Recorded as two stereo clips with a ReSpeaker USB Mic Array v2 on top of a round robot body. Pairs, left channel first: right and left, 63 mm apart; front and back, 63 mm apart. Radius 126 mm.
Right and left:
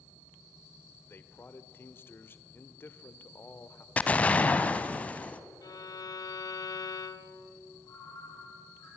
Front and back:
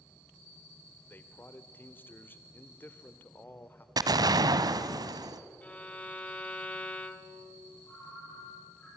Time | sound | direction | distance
1.1 | a man speaking | 50° right | 1.6 m
4.0 | an explosion | 160° right | 0.9 m
5.6 | a violin | 70° right | 1.2 m
7.8 | a ringtone | 55° right | 8 m